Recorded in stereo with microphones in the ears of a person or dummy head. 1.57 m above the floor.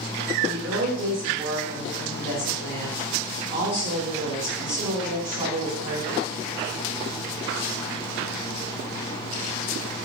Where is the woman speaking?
50° right (ahead or behind), 1.9 m.